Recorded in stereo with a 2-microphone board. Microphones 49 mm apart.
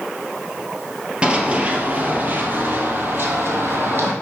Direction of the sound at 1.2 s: 20° right (ahead or behind).